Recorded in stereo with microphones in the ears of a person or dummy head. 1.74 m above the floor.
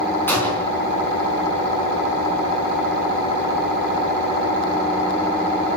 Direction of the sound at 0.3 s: 15° left (ahead or behind).